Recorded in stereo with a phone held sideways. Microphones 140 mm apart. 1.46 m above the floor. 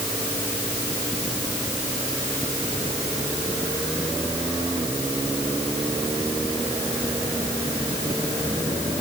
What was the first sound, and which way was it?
Only background noise.